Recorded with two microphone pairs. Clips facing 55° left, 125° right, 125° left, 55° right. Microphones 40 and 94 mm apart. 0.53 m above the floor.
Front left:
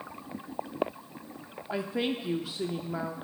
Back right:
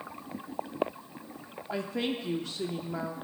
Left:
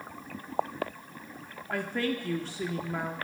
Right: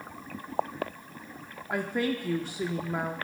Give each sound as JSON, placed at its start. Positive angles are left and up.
{"t": 1.7, "sound": "a woman speaking", "azimuth_deg": -5, "distance_m": 0.7}